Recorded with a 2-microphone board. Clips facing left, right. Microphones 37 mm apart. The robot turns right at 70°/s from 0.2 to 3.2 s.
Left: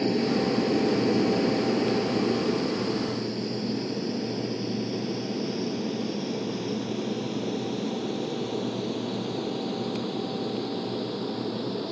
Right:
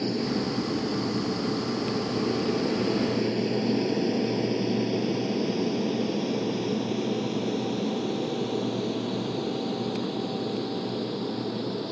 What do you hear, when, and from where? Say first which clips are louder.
0.0 s an aircraft: left 3 dB; 25° left (ahead or behind); by 11.9 s 5° left (ahead or behind)